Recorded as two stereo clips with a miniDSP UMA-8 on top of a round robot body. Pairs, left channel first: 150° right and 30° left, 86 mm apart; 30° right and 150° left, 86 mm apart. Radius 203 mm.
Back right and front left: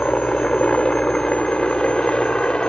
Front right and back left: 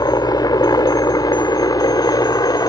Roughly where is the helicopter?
Right.